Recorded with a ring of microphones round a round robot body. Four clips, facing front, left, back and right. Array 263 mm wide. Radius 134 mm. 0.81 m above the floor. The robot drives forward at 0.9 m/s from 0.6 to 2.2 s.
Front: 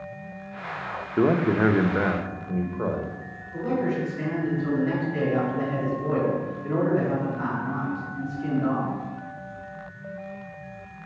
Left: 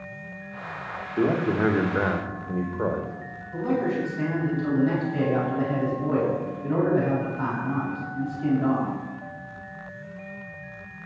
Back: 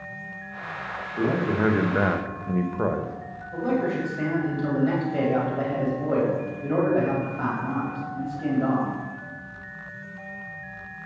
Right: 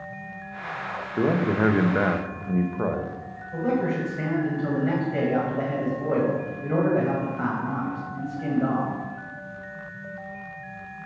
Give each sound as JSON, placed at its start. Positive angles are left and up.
{"t": 1.2, "sound": "a man speaking", "azimuth_deg": -10, "distance_m": 1.0}
{"t": 3.5, "sound": "a man speaking", "azimuth_deg": -135, "distance_m": 4.5}